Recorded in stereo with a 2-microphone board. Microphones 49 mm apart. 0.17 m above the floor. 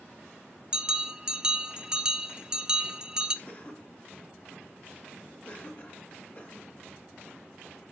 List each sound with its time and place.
0.7 s a bell: 15° right (ahead or behind), 0.6 m
3.5 s a cough: 35° left (ahead or behind), 1.8 m